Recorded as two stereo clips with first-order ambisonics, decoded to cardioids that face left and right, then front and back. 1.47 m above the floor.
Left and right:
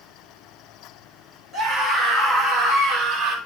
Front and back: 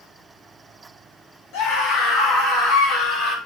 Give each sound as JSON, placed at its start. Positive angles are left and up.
{"t": 1.5, "sound": "a scream", "azimuth_deg": -10, "distance_m": 3.5}